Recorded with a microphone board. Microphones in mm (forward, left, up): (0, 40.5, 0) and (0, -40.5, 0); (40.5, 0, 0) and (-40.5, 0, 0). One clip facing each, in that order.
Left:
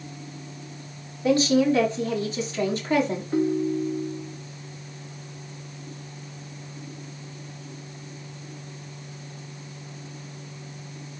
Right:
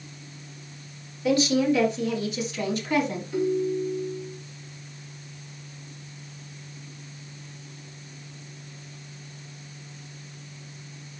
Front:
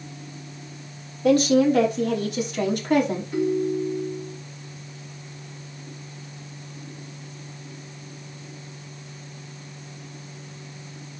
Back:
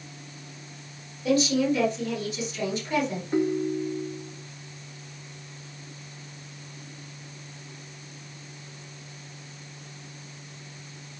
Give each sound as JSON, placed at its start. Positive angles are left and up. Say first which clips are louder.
{"t": 1.2, "sound": "a woman speaking", "louder": "left 2 dB, front 6 dB", "azimuth_deg": 35, "distance_m": 6.0}
{"t": 3.3, "sound": "a ringtone", "louder": "left 1 dB, front 2 dB", "azimuth_deg": 125, "distance_m": 2.0}